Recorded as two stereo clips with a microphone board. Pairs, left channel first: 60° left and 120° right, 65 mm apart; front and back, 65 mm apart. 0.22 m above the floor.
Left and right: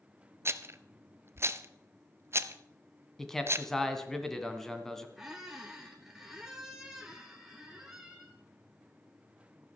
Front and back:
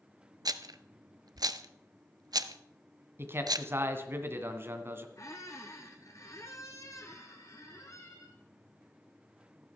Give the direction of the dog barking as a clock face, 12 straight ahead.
No dog barking in this recording.